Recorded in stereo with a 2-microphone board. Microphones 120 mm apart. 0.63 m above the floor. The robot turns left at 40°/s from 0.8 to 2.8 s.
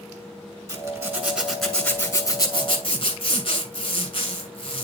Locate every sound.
0.7 s a zipper: 150° right, 2.5 m; by 4.8 s 130° left, 2.5 m